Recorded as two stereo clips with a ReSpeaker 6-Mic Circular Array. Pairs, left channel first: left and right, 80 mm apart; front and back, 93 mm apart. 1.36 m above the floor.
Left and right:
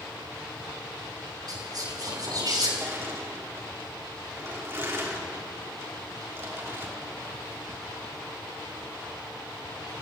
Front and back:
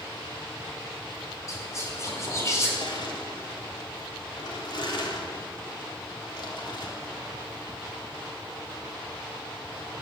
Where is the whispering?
55° right, 5.5 m.